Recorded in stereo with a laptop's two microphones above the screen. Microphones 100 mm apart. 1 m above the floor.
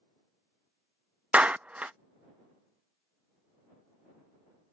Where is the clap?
15° right (ahead or behind).